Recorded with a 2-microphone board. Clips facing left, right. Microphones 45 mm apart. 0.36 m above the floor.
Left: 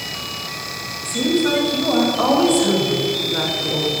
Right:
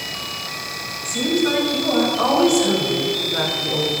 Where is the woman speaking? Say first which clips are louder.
Left 1 dB; 15° left (ahead or behind), 2.5 m; by 3.9 s centre (ahead or behind), 1.3 m.